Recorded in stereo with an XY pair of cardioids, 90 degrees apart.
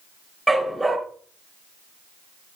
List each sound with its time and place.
0.5 s a dog barking: 15° right, 3.5 m